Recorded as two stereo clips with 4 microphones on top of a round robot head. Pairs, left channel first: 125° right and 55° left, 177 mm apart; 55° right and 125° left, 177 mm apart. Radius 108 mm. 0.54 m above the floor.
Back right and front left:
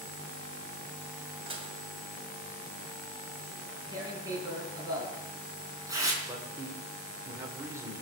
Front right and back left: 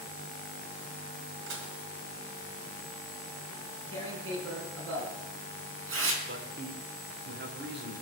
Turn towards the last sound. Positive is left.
turn(degrees=130)